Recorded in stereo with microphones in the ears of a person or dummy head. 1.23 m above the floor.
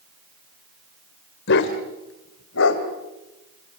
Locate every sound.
1.5 s a dog barking: 60° left (ahead or behind), 2 m; by 2.8 s 75° left (ahead or behind), 3 m